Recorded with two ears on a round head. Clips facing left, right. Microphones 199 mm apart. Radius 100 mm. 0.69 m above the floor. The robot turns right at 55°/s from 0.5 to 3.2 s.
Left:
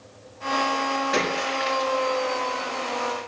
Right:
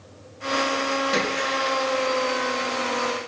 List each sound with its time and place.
1.1 s a splash: 140° right, 6 m; by 1.9 s 95° right, 6 m